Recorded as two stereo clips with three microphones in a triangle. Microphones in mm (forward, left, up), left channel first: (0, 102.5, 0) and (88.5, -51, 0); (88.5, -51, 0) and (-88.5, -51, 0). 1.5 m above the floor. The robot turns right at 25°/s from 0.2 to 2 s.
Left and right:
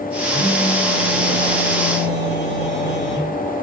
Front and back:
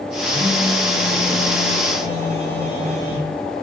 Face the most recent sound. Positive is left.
turn(degrees=130)